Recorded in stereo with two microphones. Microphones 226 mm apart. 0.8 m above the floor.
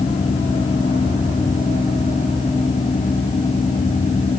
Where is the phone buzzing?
No phone buzzing in this recording.